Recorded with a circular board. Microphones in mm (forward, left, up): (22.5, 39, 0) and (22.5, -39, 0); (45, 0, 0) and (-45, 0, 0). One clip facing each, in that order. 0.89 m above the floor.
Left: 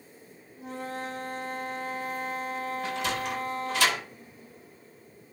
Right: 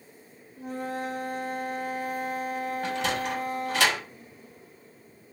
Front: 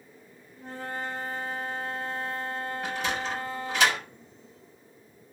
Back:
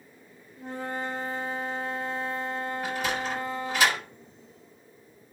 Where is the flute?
115° right, 1.4 m.